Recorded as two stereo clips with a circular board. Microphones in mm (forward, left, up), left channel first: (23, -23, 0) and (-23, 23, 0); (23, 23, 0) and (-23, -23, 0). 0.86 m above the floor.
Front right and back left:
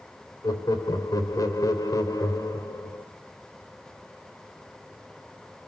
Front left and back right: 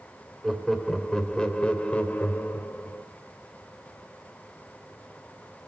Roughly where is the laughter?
Ahead right.